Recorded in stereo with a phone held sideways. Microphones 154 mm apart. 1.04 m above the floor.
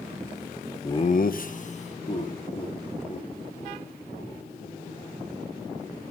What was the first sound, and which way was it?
Laughter, 20° left (ahead or behind).